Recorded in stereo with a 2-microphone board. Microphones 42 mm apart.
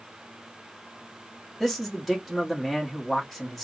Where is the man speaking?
5° left (ahead or behind), 1.2 m.